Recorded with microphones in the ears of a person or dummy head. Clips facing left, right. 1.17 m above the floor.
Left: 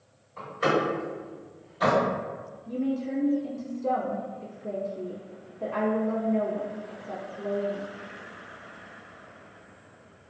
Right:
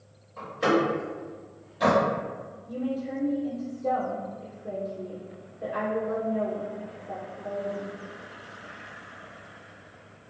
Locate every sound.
0.4 s a door slam: centre (ahead or behind), 1.7 m
2.7 s a woman speaking: 75° left (ahead or behind), 1.2 m